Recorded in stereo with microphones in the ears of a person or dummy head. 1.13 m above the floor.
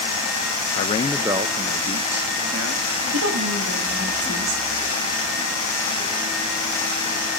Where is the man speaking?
40° left (ahead or behind), 0.6 m; by 2.9 s 60° right (ahead or behind), 2.0 m.